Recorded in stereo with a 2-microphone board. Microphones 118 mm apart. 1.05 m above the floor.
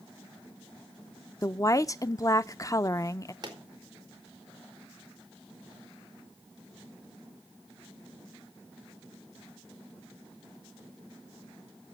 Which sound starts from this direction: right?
A pop, at 3.4 s.